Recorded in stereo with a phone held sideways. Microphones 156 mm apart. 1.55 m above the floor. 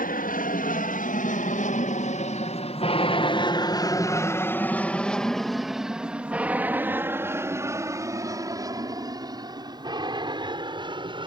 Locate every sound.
0.0 s an aircraft: 65° left (ahead or behind); by 11.3 s 30° right (ahead or behind)